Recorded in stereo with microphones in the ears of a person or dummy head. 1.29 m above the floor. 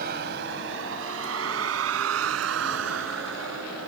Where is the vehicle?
55° right (ahead or behind); by 3.9 s 70° right (ahead or behind).